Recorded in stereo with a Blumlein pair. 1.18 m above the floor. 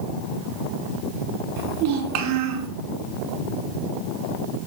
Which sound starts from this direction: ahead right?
A child speaking, at 1.6 s.